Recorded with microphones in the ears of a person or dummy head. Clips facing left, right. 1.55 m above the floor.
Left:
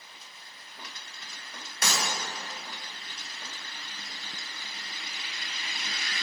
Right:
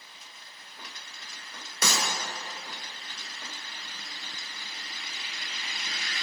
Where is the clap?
80° right, 1.0 m.